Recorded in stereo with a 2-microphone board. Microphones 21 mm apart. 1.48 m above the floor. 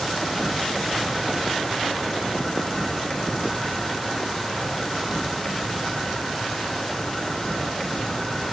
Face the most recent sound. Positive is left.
turn(degrees=15)  # may be behind; listen again after turning